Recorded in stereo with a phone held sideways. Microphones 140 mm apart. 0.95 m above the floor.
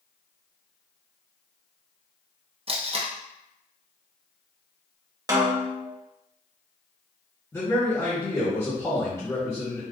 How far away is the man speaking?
About 1.0 m.